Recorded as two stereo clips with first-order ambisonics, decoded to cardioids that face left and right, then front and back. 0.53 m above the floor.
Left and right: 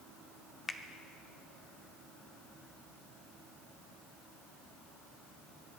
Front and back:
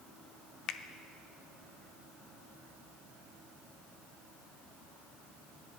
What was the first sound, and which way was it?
A finger snap, 20° left.